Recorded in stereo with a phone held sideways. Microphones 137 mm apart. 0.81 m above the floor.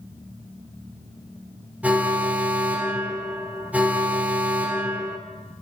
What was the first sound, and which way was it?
An alarm, 10° right (ahead or behind).